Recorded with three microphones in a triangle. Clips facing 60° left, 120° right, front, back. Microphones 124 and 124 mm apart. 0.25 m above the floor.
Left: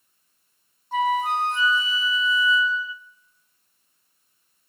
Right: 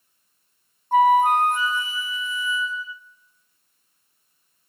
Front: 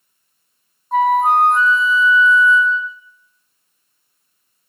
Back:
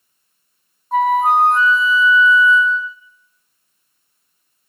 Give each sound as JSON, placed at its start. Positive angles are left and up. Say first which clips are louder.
{"t": 0.9, "sound": "a flute", "louder": "right 7 dB, even", "azimuth_deg": -90, "distance_m": 0.7}